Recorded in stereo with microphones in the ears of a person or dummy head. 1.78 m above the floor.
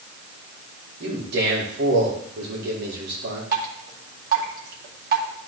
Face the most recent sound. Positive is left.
turn(degrees=-55)  # may be behind; listen again after turning